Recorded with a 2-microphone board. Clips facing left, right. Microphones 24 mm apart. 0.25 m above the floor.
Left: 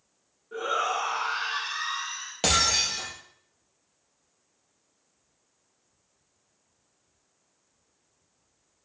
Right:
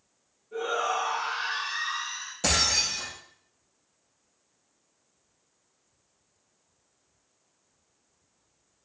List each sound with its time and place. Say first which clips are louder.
0.5 s a shout: left 1 dB; 65° left (ahead or behind), 3 m; by 2.3 s 40° left (ahead or behind), 2.5 m
2.4 s breaking glass: left 1 dB; 55° left (ahead or behind), 3.5 m